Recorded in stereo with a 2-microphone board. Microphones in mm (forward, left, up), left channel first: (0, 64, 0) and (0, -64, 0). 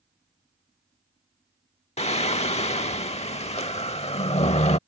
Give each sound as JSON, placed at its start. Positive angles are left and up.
{"t": 2.0, "sound": "singing", "side_deg": 55}